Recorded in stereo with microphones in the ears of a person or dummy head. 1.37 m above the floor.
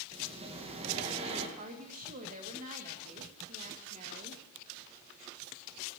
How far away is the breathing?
About 1.7 m.